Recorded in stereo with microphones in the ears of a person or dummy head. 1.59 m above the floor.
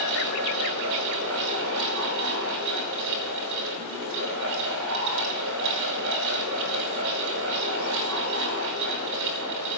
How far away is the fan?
About 5 m.